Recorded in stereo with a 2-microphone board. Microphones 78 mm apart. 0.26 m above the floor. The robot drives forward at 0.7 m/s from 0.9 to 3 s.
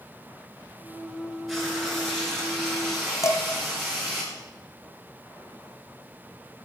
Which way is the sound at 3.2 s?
40° left (ahead or behind).